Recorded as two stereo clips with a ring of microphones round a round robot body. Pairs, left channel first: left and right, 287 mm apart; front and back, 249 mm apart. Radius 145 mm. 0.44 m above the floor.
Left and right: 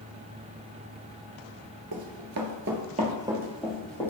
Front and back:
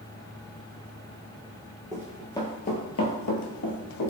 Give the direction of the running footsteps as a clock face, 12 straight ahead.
3 o'clock.